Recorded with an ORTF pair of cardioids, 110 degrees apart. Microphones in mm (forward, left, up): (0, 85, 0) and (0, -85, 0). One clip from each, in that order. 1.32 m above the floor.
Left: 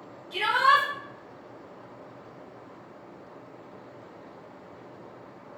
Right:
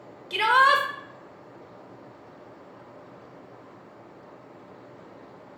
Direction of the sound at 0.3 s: 70° right.